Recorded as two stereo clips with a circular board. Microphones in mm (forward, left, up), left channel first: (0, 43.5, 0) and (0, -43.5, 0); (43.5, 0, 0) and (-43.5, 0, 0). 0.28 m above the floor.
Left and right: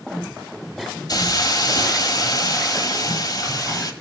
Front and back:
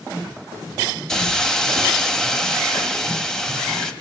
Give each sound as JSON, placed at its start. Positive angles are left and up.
{"t": 1.1, "sound": "a hiss", "azimuth_deg": 85, "distance_m": 1.0}